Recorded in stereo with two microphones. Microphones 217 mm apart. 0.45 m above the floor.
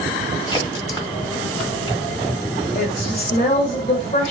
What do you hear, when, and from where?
0.5 s a crack: 20° left (ahead or behind), 1.4 m
2.8 s a woman speaking: 40° left (ahead or behind), 1.5 m